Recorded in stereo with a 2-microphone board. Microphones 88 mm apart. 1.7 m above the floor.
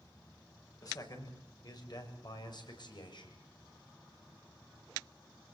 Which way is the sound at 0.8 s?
45° left (ahead or behind).